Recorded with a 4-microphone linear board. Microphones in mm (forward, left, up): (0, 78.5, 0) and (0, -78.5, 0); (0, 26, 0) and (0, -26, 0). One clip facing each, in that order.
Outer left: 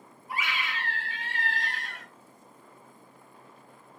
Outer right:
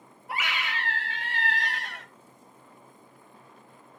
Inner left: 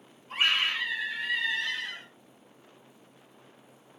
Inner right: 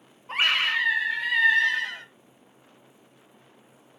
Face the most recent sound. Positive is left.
turn(degrees=-75)  # may be behind; listen again after turning